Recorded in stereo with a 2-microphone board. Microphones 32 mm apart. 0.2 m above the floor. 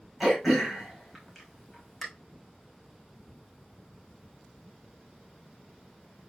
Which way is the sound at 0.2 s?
5° right (ahead or behind).